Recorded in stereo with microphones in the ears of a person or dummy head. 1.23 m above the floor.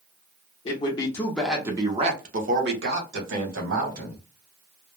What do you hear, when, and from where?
0.7 s a man speaking: 35° left (ahead or behind), 0.9 m; by 4.3 s 70° right (ahead or behind), 1.9 m